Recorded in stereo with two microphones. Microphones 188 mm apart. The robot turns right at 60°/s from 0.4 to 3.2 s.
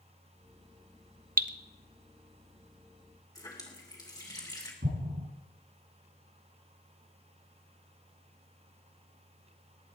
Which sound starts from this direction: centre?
A running tap, at 3.4 s.